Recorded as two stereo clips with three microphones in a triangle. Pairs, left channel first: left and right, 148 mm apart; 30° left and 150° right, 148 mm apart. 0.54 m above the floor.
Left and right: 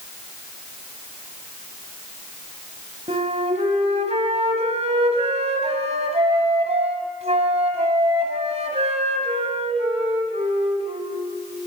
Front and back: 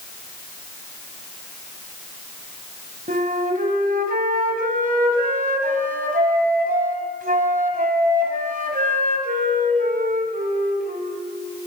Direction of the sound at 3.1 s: 130° right.